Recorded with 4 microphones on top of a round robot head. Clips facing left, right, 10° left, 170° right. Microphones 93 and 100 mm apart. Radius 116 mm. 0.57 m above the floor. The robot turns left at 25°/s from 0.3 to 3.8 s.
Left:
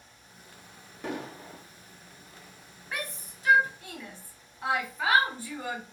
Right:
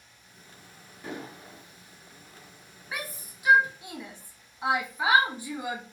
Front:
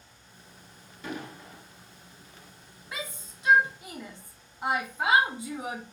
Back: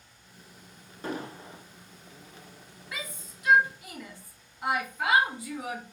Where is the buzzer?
No buzzer in this recording.